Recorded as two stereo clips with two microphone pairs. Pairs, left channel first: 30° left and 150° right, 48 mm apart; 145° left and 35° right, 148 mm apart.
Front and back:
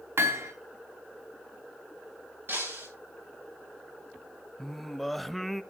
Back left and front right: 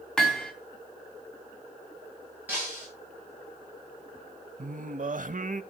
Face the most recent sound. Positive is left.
turn(degrees=-60)